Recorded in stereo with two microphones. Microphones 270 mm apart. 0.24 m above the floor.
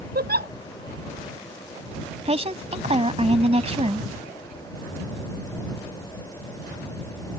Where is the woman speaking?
25° right (ahead or behind).